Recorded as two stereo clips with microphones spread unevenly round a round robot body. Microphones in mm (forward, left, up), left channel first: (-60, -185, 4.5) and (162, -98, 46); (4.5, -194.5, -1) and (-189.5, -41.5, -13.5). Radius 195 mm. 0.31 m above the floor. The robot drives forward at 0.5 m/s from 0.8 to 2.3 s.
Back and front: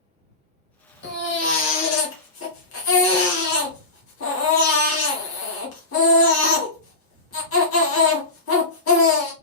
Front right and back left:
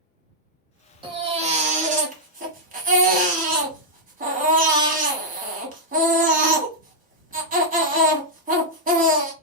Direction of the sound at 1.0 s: 150° right.